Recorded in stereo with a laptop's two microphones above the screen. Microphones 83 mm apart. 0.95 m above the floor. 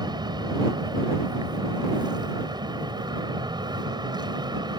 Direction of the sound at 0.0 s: 70° right (ahead or behind).